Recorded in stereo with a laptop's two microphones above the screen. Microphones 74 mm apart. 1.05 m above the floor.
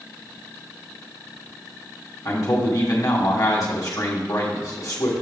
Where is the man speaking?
50° left (ahead or behind), 1.4 m.